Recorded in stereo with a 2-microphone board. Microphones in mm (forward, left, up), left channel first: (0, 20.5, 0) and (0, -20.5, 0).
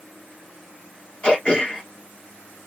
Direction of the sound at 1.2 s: 30° left (ahead or behind).